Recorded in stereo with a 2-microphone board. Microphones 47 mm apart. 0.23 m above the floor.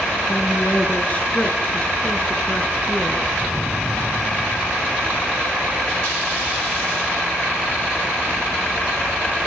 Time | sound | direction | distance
0.3 | a woman speaking | 35° left (ahead or behind) | 3.5 m